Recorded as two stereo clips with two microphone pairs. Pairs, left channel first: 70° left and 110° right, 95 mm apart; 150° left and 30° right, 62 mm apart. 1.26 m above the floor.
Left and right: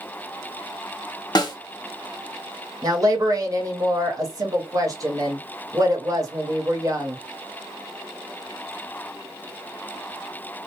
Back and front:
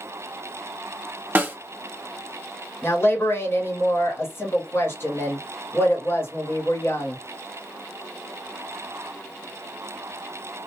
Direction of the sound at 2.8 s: 160° right.